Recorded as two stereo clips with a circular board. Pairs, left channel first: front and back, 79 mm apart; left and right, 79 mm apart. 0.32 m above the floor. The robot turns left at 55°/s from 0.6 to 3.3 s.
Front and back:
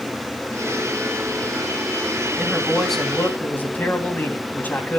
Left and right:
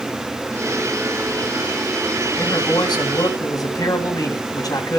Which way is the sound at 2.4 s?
115° left.